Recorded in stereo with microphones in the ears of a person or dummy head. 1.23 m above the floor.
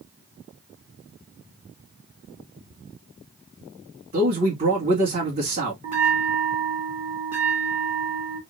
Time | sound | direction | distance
4.1 | a man speaking | 35° right (ahead or behind) | 2.5 m
5.8 | a bell | 40° right (ahead or behind) | 1.6 m